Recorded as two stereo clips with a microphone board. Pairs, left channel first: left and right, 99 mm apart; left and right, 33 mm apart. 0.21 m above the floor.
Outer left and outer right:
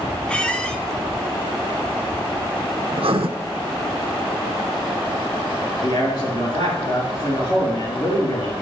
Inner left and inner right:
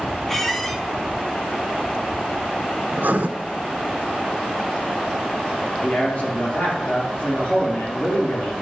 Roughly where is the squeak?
Centre.